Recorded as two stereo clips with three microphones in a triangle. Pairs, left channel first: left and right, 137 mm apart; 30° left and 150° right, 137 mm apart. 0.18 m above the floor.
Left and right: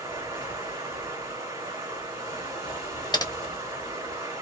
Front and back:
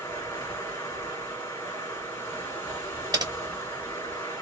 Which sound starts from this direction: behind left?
Typing on a keyboard, at 3.1 s.